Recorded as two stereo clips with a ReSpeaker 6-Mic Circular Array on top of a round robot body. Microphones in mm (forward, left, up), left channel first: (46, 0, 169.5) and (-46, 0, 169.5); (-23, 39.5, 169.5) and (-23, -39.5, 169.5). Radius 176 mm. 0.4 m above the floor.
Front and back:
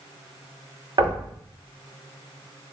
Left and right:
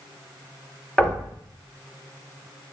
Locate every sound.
1.0 s knocking: 165° left, 1.7 m